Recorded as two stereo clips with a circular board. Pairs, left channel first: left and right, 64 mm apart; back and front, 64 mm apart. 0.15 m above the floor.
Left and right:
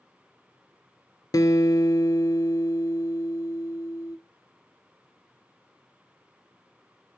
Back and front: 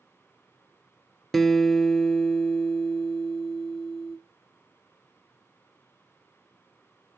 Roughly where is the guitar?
Left.